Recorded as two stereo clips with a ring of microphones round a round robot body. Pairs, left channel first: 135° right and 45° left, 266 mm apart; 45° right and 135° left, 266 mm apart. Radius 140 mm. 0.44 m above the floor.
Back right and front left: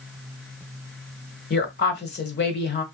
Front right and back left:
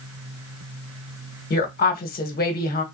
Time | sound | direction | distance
1.5 | a woman speaking | 95° right | 1.1 m